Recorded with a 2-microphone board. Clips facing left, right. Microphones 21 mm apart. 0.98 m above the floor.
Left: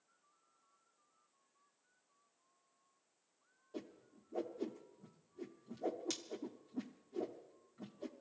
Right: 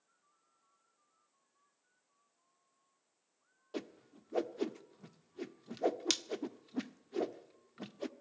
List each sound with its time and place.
3.7 s a whoosh: 60° right (ahead or behind), 0.8 m